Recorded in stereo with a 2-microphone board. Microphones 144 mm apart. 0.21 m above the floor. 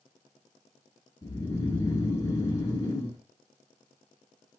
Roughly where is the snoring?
Left.